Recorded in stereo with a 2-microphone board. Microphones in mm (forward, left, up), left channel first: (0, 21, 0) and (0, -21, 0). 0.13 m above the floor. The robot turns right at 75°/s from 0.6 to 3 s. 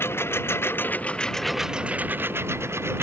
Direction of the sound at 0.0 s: 110° left.